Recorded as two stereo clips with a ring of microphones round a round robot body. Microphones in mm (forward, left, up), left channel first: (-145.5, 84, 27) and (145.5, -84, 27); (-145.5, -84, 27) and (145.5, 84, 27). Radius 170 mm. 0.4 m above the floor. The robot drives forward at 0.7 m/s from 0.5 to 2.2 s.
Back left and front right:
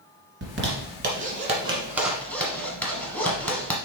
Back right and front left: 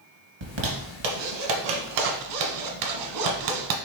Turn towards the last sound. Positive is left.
turn(degrees=65)